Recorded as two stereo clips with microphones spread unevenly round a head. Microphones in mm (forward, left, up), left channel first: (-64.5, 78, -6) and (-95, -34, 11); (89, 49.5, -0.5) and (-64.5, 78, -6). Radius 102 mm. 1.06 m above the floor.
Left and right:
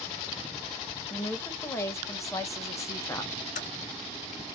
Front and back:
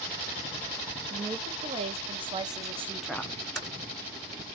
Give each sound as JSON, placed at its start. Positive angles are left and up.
{"t": 1.1, "sound": "a woman speaking", "azimuth_deg": 135, "distance_m": 1.6}
{"t": 3.5, "sound": "typing on a keyboard", "azimuth_deg": 80, "distance_m": 2.0}